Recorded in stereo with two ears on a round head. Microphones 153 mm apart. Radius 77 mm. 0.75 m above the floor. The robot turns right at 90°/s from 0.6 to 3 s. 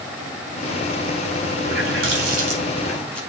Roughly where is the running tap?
Behind right.